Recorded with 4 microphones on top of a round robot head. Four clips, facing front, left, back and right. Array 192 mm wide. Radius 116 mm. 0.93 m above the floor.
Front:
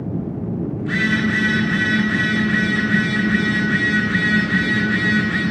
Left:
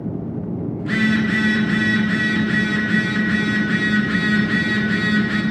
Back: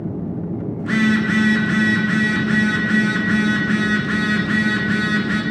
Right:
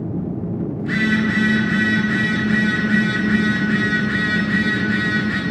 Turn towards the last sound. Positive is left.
turn(degrees=160)